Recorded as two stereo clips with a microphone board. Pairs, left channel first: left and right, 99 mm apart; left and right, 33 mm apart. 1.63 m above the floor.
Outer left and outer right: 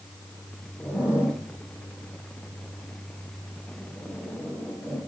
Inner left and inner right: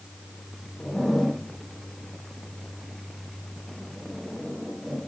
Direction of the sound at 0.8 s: 20° left (ahead or behind).